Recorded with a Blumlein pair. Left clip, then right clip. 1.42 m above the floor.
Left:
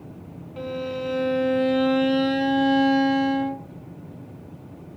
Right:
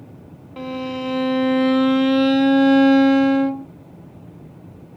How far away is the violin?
About 0.6 m.